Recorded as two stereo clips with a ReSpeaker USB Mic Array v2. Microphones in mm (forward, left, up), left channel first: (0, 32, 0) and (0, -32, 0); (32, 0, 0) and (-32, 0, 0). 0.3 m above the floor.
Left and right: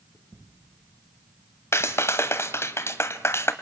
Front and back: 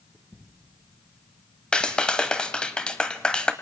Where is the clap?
70° left, 1.7 m.